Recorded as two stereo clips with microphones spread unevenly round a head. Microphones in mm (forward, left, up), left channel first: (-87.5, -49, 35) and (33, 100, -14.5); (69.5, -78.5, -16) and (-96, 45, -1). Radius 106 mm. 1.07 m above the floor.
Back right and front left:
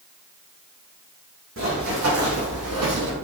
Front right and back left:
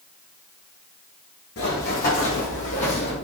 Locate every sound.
1.6 s running footsteps: 10° left, 3.5 m; by 3.1 s 30° left, 2.5 m